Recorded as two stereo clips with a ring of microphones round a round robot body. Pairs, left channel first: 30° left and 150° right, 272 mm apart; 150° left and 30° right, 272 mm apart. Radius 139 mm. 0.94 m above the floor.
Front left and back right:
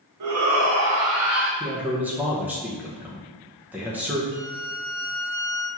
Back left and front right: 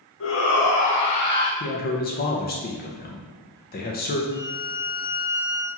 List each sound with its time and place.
0.2 s a shout: 165° right, 1.0 m; by 1.5 s 170° left, 1.5 m
1.6 s a man speaking: 130° left, 0.5 m
4.3 s a violin: 140° right, 1.2 m